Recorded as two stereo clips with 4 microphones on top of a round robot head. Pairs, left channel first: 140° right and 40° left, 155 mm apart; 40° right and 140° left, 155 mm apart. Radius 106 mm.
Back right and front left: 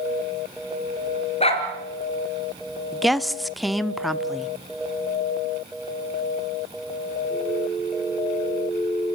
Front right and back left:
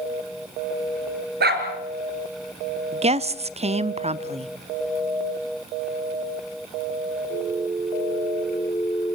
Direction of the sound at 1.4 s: 165° left.